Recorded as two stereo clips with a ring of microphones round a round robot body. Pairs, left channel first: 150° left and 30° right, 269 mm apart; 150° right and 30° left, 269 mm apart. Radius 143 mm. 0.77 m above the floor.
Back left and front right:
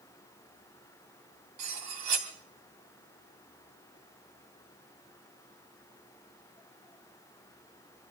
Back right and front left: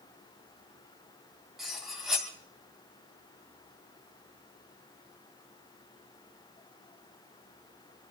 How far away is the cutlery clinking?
About 3 m.